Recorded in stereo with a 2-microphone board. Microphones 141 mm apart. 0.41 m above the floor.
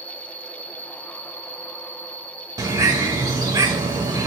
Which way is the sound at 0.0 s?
10° left (ahead or behind).